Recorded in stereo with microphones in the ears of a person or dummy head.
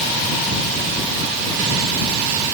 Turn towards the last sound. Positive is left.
No sound to turn to.